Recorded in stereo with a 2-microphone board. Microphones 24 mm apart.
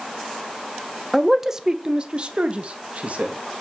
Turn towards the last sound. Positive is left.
turn(degrees=-65)  # may be behind; listen again after turning